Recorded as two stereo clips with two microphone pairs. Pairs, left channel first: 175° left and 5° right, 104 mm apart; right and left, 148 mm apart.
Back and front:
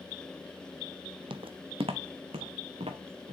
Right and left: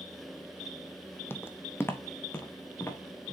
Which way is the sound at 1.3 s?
15° right.